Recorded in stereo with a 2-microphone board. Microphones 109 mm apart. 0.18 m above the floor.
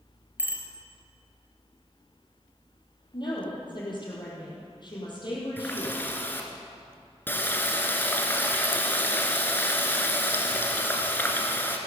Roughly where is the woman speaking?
Left.